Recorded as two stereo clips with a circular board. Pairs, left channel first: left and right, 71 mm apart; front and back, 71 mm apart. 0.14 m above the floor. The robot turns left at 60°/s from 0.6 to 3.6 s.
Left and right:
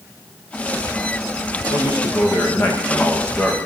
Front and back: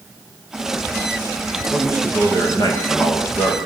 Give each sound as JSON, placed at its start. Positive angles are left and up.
{"t": 1.7, "sound": "a man speaking", "azimuth_deg": 95, "distance_m": 9.0}